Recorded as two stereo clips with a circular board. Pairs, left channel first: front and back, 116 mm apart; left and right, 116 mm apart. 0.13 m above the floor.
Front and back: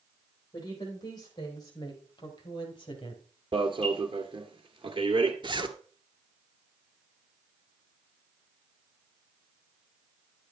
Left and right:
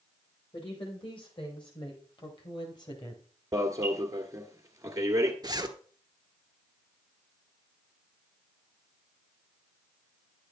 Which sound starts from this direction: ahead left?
A woman speaking, at 0.5 s.